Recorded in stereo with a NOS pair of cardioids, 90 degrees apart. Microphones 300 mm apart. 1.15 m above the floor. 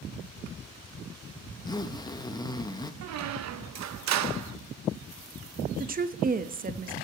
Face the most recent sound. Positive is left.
turn(degrees=-30)